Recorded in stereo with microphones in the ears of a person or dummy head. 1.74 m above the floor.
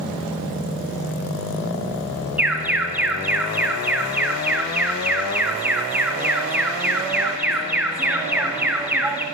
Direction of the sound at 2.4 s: 10° right (ahead or behind).